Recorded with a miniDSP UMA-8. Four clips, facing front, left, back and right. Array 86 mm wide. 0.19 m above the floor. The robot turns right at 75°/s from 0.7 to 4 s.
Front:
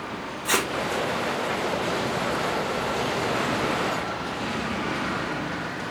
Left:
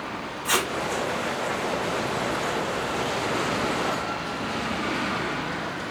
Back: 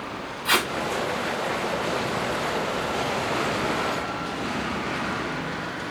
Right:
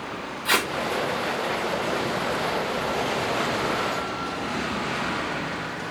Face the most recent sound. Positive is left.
turn(degrees=120)